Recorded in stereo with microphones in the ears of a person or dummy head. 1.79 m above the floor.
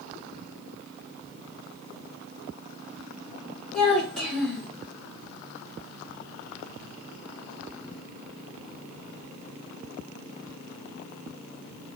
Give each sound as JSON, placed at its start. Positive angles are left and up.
{"t": 3.7, "sound": "a child speaking", "side_deg": 0, "distance_m": 2.0}